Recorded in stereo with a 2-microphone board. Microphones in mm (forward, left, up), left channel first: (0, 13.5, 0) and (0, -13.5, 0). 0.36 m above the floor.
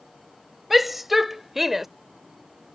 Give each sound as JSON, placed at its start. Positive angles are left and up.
{"t": 0.7, "sound": "a shout", "side_deg": -5}